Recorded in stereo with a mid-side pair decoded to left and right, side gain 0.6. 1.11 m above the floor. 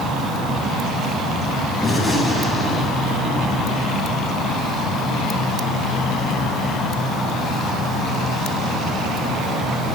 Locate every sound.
1.8 s a gunshot: 5° left, 9.5 m